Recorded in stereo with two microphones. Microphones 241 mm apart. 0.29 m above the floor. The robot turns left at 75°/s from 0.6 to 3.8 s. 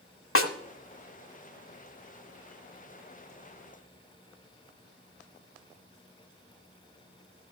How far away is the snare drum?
About 1.0 m.